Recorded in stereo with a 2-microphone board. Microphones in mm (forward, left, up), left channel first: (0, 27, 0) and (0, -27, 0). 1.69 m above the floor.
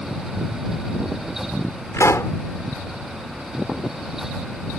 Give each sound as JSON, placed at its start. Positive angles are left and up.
{"t": 1.9, "sound": "a pop", "side_deg": 60}